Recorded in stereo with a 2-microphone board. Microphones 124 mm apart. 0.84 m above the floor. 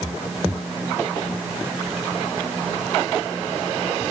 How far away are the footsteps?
I don't hear footsteps.